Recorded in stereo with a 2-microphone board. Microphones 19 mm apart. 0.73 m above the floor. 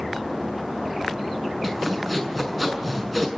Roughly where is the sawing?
Centre.